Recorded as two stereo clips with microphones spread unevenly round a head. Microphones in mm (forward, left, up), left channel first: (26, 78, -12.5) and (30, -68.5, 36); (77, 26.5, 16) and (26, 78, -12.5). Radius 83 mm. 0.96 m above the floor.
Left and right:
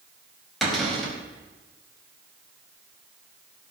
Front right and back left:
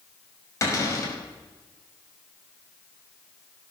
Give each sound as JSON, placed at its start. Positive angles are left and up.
{"t": 0.6, "sound": "a cupboard door", "azimuth_deg": 0, "distance_m": 5.0}